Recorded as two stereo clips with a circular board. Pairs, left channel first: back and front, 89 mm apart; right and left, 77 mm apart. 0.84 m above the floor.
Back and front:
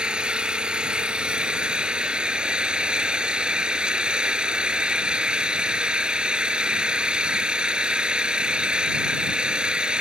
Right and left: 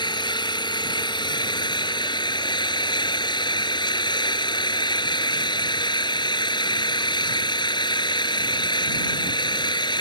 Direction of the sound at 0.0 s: 80° right.